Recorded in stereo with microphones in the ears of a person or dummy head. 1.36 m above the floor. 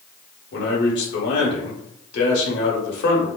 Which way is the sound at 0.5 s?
70° left (ahead or behind).